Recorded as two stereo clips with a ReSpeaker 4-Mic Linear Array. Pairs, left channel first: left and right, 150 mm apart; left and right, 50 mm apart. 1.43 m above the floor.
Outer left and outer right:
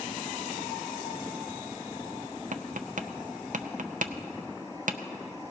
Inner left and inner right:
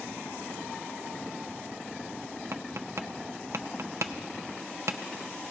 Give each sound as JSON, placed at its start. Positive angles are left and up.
{"t": 2.5, "sound": "tapping", "side_deg": -65, "distance_m": 0.5}